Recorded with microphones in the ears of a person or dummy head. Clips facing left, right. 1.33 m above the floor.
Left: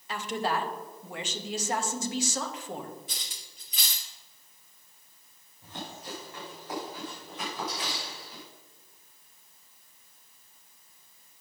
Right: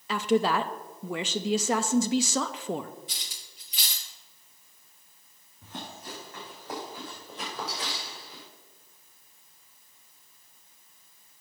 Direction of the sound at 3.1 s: 45° left (ahead or behind).